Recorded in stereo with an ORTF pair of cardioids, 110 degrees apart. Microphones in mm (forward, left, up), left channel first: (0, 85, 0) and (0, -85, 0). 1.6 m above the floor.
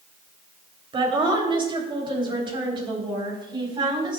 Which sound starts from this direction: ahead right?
A woman speaking, at 0.9 s.